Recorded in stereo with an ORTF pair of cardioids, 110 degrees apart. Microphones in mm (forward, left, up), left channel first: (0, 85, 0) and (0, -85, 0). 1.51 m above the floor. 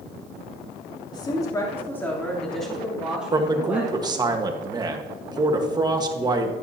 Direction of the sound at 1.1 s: 25° left.